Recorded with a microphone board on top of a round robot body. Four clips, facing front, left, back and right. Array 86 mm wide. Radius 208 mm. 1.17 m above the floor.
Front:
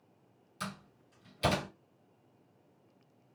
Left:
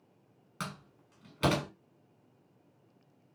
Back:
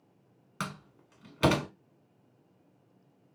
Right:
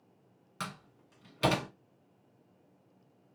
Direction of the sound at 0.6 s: Straight behind.